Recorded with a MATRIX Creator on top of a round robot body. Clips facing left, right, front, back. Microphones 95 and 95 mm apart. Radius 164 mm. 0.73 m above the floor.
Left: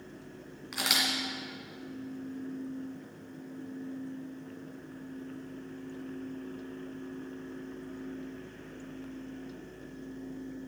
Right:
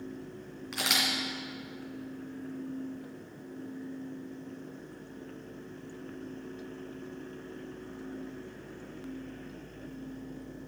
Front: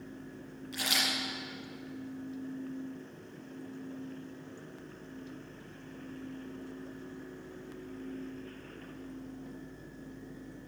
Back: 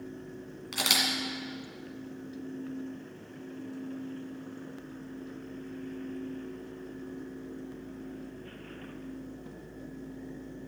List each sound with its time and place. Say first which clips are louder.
0.7 s a camera shutter: even, back 3 dB; 175° left, 2.0 m